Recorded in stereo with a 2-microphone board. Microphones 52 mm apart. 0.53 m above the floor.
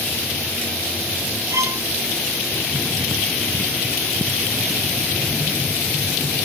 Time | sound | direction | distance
1.5 | a violin | 75° right (ahead or behind) | ?